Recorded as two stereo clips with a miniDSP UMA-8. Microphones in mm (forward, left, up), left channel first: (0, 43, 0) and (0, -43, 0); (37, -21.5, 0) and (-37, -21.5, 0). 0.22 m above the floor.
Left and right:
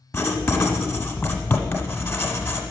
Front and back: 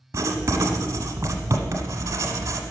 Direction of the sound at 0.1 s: 145° left.